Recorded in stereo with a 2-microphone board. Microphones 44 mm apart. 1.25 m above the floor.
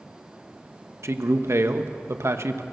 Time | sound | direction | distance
1.0 | a man speaking | 85° right | 1.2 m